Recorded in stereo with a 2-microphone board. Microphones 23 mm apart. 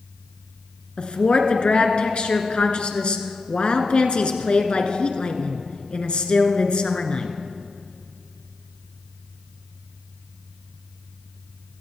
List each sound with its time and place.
1.0 s a woman speaking: 55° left (ahead or behind), 1.9 m